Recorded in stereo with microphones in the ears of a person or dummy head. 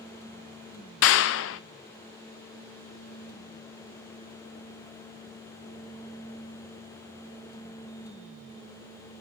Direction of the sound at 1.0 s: 55° left (ahead or behind).